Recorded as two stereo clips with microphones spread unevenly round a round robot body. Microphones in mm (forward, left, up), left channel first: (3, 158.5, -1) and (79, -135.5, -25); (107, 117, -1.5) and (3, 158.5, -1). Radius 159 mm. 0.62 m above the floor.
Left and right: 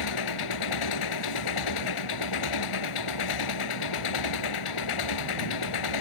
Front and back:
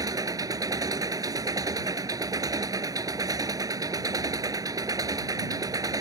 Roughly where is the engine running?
Left.